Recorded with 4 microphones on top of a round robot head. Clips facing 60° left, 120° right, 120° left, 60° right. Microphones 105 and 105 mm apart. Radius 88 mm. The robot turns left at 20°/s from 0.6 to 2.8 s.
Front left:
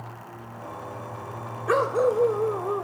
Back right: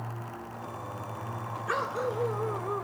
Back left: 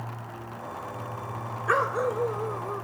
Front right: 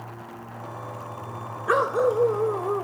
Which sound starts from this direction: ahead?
A dog barking, at 1.7 s.